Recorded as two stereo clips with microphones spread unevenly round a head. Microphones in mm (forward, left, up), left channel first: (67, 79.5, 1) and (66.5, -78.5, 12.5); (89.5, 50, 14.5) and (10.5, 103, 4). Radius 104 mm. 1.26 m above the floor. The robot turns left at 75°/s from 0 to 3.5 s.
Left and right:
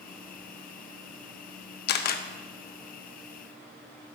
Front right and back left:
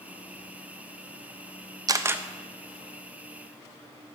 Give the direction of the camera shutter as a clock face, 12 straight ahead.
9 o'clock.